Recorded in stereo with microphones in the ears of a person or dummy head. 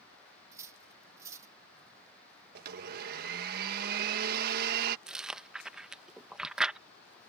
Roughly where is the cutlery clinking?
Centre.